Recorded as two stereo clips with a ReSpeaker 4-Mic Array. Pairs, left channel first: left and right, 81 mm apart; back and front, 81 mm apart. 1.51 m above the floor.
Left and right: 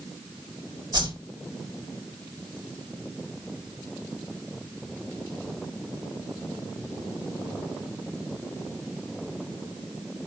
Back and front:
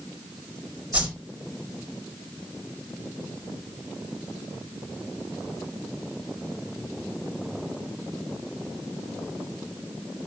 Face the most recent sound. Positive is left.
turn(degrees=-75)